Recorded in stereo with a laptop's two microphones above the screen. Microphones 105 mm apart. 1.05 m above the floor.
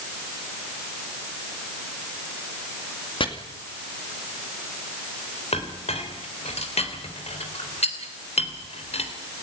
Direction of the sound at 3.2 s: 50° left (ahead or behind).